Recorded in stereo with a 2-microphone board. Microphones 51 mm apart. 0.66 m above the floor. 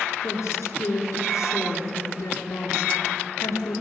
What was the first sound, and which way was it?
A woman speaking, 85° left.